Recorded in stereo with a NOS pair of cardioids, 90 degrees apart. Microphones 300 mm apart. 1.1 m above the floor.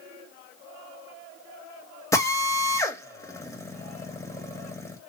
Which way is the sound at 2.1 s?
10° left.